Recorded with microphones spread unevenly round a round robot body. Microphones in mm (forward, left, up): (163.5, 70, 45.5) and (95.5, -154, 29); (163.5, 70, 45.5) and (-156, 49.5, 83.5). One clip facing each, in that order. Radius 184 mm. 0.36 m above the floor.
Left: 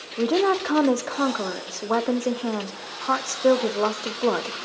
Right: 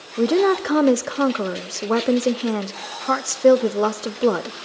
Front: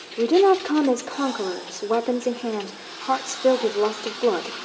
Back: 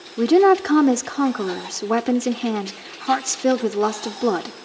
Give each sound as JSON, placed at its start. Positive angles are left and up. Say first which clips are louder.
{"t": 0.2, "sound": "a woman speaking", "louder": "right 4 dB, back 2 dB", "azimuth_deg": -135, "distance_m": 0.9}